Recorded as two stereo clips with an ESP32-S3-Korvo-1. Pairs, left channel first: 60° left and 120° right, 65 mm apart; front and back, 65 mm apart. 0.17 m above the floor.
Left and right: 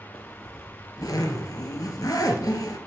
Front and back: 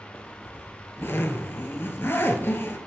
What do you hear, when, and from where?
0.1 s a zipper: 55° left, 0.9 m